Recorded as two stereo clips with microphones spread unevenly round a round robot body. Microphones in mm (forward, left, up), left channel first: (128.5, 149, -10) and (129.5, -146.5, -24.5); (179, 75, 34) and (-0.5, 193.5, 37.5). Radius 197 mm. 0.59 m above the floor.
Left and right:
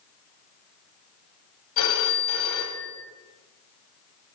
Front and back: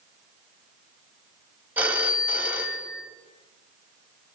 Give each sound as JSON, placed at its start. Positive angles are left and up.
{"t": 1.8, "sound": "a phone ringing", "azimuth_deg": 65, "distance_m": 2.0}